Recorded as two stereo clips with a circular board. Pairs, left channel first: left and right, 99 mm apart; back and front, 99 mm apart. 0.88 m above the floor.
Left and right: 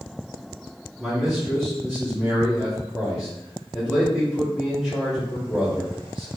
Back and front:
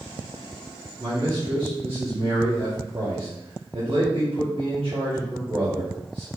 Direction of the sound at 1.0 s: 5° right.